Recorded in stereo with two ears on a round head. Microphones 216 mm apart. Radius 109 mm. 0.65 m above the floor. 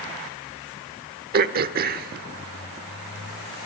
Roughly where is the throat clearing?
Right.